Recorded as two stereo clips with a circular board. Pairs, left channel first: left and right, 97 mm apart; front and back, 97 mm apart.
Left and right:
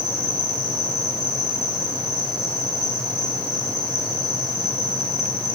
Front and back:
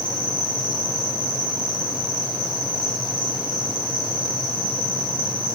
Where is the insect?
40° right, 7.5 m.